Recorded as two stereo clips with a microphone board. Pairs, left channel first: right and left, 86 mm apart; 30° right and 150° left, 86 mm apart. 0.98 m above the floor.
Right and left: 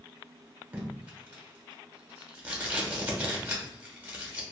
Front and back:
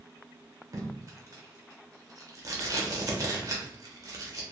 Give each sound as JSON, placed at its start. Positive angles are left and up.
{"t": 0.7, "sound": "tape being pulled", "azimuth_deg": 150, "distance_m": 0.8}